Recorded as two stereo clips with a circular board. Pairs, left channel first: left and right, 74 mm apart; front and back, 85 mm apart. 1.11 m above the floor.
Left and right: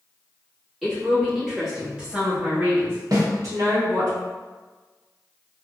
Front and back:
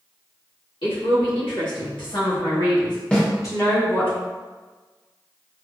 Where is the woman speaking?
5° left, 2.0 m; by 4.1 s 70° right, 1.2 m.